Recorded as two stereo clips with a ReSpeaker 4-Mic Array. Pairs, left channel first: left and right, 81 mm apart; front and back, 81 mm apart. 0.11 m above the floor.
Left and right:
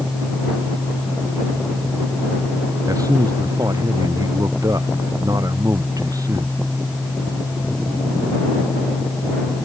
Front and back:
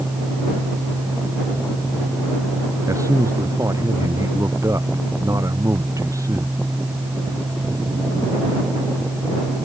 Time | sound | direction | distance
2.9 | a man speaking | 130° right | ?